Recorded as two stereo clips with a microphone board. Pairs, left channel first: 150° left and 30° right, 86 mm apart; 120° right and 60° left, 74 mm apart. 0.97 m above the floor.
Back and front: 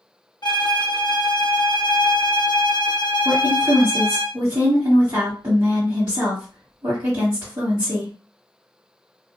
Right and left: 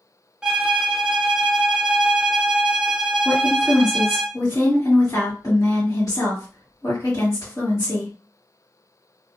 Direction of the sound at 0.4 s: 135° left.